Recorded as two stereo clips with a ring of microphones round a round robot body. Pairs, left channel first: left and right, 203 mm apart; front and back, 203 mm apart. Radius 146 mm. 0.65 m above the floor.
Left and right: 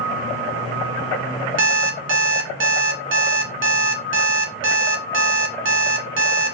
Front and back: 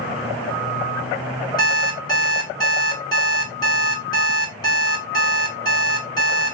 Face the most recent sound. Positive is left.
turn(degrees=-75)